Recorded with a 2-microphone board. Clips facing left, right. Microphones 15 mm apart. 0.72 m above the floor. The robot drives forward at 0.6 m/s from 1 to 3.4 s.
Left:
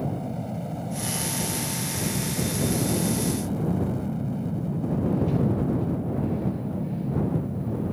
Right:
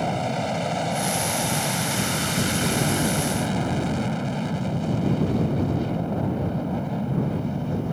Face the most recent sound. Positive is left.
turn(degrees=-55)  # may be behind; listen again after turning